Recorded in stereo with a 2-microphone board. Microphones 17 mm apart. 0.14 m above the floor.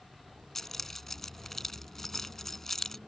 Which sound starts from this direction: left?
Keys jangling, at 0.6 s.